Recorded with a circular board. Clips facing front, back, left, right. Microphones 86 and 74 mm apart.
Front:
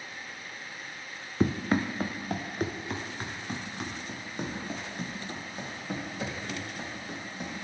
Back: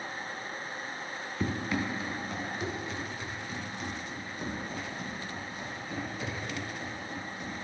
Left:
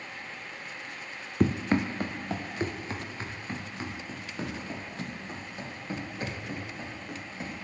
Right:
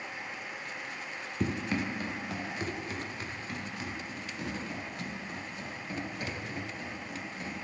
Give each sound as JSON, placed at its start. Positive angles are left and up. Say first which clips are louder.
{"t": 1.4, "sound": "running footsteps", "louder": "front 5 dB, left 6 dB", "azimuth_deg": 50, "distance_m": 0.6}